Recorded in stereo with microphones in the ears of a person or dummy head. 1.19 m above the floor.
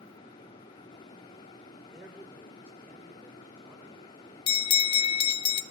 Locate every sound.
1.9 s a man speaking: 5° right (ahead or behind), 4 m; by 4.4 s 15° right (ahead or behind), 6 m
4.5 s a bell: 30° left (ahead or behind), 0.8 m